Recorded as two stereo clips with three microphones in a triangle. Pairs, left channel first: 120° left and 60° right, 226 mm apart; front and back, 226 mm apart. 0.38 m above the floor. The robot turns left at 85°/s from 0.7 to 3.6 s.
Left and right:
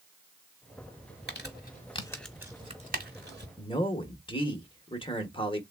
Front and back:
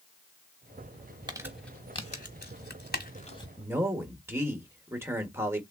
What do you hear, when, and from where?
1.3 s crumpling: 115° left, 0.9 m; by 3.5 s 70° right, 0.9 m
3.6 s a man speaking: 120° left, 0.8 m